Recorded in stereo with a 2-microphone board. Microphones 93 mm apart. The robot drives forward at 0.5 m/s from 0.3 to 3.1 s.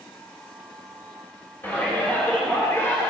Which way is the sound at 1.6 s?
20° left (ahead or behind).